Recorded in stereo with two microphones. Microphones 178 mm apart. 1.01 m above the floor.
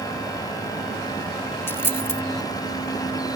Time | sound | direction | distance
1.7 | a dropped coin | 15° left (ahead or behind) | ?